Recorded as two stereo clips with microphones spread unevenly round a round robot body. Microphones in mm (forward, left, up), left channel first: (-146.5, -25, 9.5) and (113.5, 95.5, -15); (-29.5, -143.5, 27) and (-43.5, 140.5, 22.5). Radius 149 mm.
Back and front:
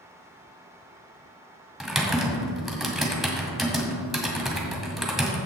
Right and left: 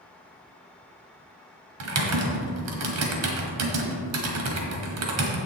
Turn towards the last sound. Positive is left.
turn(degrees=110)